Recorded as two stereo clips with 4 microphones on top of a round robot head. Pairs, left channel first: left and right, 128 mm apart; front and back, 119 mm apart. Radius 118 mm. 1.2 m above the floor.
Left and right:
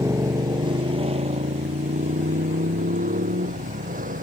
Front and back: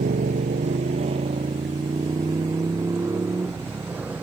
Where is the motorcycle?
155° right; by 4.2 s 100° right.